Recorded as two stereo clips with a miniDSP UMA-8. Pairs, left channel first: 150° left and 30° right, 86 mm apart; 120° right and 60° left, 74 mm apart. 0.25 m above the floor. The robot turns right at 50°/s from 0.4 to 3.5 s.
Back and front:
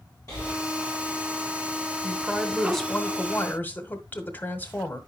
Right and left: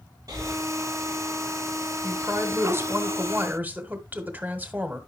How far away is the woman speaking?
About 1.5 m.